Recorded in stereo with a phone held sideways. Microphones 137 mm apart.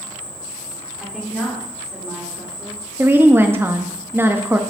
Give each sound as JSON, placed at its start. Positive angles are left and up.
{"t": 0.0, "sound": "an insect", "side_deg": 10, "distance_m": 2.5}
{"t": 1.0, "sound": "a woman speaking", "side_deg": -5, "distance_m": 3.0}
{"t": 3.0, "sound": "a woman speaking", "side_deg": -15, "distance_m": 0.8}